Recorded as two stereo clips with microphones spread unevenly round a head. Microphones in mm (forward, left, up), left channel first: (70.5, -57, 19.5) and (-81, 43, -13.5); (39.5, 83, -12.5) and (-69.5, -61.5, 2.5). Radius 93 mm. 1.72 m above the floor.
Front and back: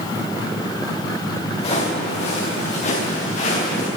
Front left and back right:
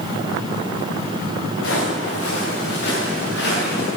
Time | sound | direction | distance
1.6 | footsteps | 25° left | 9.5 m